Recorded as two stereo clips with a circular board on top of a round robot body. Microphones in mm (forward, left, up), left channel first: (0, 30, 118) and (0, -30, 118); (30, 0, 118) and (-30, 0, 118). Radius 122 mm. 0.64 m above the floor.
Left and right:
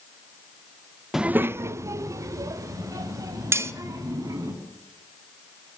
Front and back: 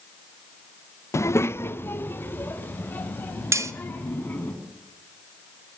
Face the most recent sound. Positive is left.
turn(degrees=-140)